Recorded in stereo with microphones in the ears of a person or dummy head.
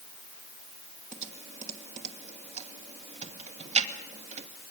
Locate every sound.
1.1 s typing on a keyboard: 40° right (ahead or behind), 2.0 m